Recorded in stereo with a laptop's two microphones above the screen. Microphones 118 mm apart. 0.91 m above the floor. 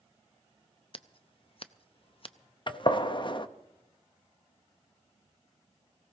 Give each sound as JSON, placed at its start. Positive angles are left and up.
{"t": 0.9, "sound": "scissors", "side_deg": 50, "distance_m": 0.5}
{"t": 2.7, "sound": "a gunshot", "side_deg": 45, "distance_m": 0.8}